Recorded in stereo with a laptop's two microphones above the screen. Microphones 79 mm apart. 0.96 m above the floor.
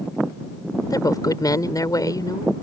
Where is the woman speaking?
50° left (ahead or behind).